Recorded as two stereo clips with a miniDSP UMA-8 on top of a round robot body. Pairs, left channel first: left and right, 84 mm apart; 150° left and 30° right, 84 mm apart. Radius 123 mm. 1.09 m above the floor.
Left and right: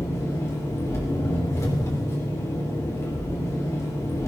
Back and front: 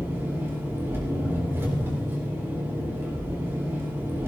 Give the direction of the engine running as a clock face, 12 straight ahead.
11 o'clock.